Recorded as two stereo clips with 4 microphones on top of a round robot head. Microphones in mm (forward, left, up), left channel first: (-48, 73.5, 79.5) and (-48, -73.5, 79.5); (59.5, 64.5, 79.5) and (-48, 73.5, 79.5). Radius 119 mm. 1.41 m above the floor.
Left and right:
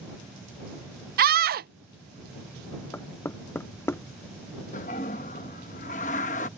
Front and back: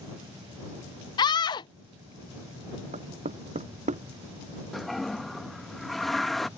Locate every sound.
1.2 s a scream: 65° right
2.9 s knocking: 165° left
4.7 s a toilet flushing: 85° left